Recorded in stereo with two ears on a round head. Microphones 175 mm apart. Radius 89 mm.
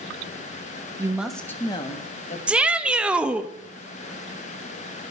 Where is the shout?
5° right (ahead or behind), 0.6 m.